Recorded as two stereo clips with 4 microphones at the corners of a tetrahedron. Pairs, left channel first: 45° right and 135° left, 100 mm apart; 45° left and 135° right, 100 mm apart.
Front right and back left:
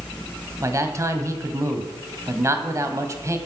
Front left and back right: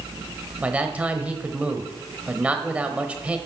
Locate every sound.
0.6 s a man speaking: 160° left, 1.1 m